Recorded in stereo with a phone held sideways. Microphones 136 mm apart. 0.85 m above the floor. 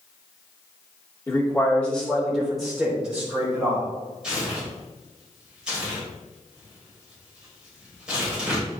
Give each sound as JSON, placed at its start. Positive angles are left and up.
{"t": 1.3, "sound": "a man speaking", "side_deg": 15, "distance_m": 2.5}
{"t": 4.2, "sound": "tearing paper", "side_deg": -5, "distance_m": 4.0}